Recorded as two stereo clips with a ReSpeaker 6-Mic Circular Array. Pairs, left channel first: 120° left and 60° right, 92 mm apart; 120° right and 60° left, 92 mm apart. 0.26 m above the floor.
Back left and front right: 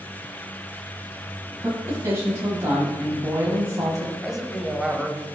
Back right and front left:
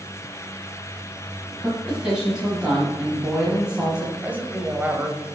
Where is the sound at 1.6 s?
20° right, 1.4 m.